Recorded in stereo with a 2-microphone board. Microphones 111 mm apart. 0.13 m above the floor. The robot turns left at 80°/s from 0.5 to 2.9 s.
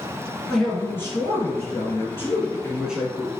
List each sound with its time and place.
0.5 s a man speaking: straight behind, 1.3 m; by 3.3 s 15° right, 1.3 m